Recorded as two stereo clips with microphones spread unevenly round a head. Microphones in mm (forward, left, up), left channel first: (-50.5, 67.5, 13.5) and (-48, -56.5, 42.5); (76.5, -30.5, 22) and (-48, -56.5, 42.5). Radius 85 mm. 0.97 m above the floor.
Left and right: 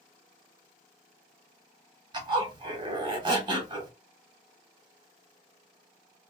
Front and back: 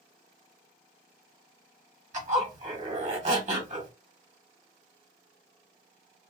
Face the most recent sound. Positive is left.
turn(degrees=-140)